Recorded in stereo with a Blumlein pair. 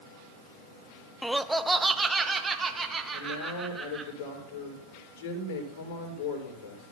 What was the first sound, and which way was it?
Laughter, 5° left.